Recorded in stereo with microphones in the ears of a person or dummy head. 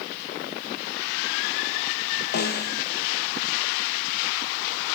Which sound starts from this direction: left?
A snare drum, at 2.3 s.